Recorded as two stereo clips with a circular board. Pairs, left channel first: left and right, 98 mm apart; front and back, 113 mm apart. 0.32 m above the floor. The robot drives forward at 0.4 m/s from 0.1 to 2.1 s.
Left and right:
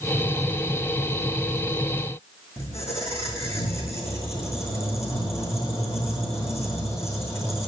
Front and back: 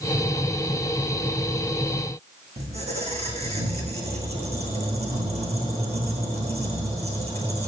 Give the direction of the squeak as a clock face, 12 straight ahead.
7 o'clock.